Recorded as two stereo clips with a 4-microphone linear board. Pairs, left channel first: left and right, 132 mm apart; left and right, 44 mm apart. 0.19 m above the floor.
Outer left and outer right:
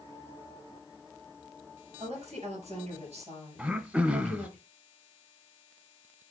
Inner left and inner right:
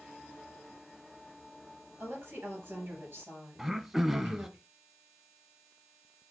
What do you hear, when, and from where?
2.0 s a woman speaking: 55° right (ahead or behind), 4 m
3.6 s throat clearing: 10° right (ahead or behind), 0.5 m